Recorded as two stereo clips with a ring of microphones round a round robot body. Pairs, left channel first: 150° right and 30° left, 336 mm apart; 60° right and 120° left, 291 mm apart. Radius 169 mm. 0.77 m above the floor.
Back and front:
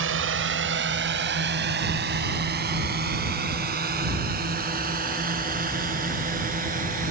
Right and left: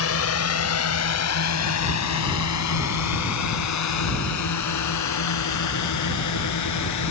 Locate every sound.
0.0 s a drone: 25° right; by 7.1 s 35° right